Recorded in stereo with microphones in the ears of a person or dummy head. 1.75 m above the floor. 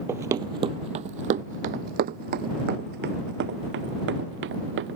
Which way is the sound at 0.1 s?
20° right (ahead or behind).